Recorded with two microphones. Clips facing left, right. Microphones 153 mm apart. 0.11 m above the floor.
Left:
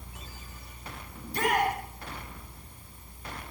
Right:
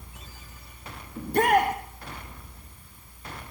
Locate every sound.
1.2 s a shout: 55° right (ahead or behind), 4 m